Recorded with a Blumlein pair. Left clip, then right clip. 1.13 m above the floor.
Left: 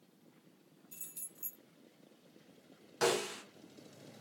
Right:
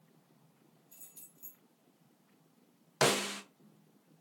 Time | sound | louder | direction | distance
0.9 | keys jangling | left 6 dB | 65° left | 1.0 m
3.0 | a snare drum | right 3 dB | 30° right | 0.7 m